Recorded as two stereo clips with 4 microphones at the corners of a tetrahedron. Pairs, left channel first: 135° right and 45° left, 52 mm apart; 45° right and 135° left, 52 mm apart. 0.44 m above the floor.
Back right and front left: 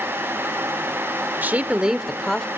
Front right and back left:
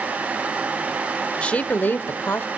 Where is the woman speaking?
10° left, 1.0 m; by 2.5 s 65° right, 1.1 m.